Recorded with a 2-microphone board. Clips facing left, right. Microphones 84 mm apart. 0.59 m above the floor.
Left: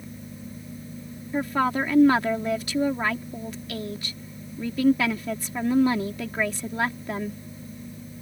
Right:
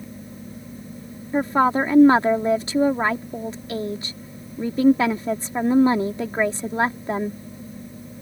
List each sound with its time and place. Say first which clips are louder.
1.3 s a woman speaking: right 5 dB; 30° right (ahead or behind)